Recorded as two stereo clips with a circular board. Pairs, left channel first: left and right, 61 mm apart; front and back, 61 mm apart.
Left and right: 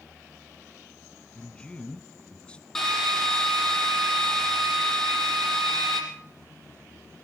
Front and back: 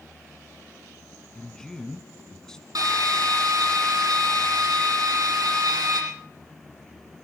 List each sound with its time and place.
1.4 s a man speaking: 60° left, 1.3 m
2.8 s a drill: 170° left, 6 m